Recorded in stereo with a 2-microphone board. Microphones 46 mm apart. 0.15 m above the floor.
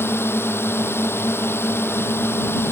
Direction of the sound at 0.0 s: 55° left (ahead or behind).